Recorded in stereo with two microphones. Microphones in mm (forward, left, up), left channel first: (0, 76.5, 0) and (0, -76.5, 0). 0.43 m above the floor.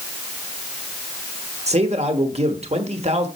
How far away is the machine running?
I don't hear a machine running.